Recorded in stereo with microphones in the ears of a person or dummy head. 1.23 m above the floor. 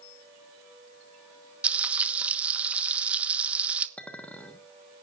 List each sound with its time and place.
1.6 s frying: 10° right (ahead or behind), 1.1 m
4.0 s a clink: 10° left (ahead or behind), 1.3 m